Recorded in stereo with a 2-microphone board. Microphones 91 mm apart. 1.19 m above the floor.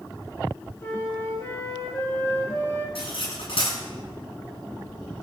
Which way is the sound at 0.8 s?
30° left (ahead or behind).